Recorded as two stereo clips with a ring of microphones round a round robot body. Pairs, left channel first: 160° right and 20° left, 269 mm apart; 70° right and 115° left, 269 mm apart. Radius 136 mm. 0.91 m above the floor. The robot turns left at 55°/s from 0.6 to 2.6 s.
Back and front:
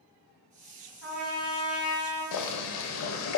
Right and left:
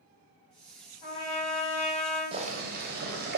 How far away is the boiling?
About 0.5 m.